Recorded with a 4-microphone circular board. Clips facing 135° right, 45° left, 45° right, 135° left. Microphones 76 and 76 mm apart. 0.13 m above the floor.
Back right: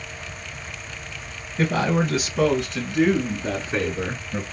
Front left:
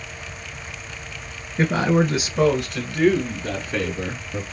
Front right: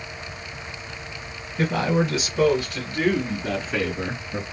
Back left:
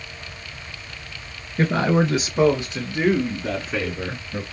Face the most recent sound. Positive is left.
turn(degrees=-120)